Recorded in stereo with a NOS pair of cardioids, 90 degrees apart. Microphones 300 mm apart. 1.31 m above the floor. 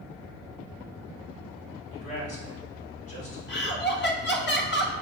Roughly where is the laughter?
Ahead left.